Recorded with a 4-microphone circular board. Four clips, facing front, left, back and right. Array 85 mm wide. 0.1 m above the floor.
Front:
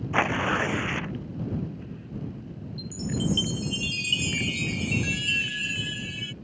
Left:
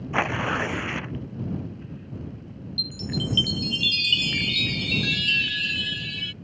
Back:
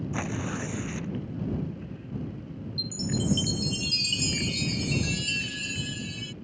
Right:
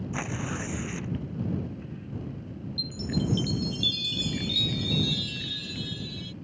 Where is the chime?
60° left.